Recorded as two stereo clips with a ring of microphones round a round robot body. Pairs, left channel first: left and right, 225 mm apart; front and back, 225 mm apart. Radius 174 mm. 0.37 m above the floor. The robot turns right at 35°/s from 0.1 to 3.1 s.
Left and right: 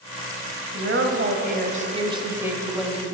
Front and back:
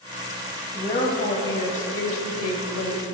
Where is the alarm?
I don't hear an alarm.